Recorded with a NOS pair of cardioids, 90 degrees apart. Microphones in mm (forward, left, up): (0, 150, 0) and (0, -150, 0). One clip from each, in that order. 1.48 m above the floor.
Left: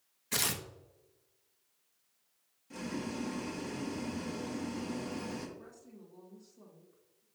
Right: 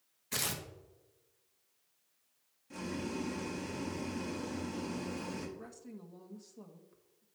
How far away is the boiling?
About 1.5 m.